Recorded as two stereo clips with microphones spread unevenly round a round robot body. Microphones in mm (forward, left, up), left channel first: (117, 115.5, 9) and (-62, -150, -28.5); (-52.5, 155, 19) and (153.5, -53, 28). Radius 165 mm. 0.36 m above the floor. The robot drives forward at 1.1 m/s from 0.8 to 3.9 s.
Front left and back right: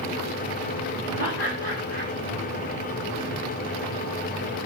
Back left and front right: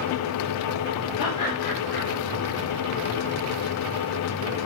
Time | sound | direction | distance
1.2 | laughter | 110° left | 7 m